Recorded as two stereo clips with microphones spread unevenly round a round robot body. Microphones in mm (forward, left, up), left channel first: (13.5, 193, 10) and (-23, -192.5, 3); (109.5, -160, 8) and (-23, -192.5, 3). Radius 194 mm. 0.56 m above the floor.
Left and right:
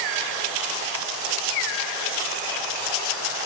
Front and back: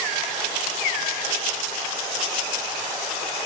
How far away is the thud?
No thud in this recording.